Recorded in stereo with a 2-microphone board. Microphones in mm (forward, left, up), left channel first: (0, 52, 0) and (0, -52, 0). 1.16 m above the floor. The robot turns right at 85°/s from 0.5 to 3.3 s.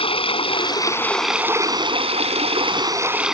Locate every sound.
0.0 s running water: 115° left; by 3.4 s 5° right